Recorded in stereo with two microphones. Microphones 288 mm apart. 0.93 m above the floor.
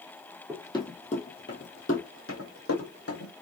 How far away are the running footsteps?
About 1.3 m.